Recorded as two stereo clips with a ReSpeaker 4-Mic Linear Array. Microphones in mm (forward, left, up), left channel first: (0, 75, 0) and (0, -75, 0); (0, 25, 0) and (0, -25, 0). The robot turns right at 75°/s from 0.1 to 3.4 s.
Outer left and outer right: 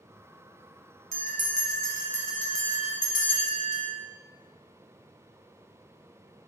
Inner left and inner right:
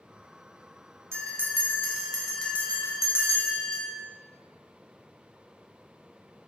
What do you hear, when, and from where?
1.1 s a bell: 85° right, 0.8 m; by 3.9 s 85° left, 0.8 m